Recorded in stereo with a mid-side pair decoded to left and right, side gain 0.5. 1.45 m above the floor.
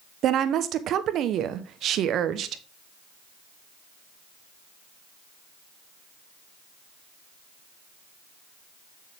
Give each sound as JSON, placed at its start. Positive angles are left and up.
{"t": 0.2, "sound": "a woman speaking", "azimuth_deg": -65, "distance_m": 1.0}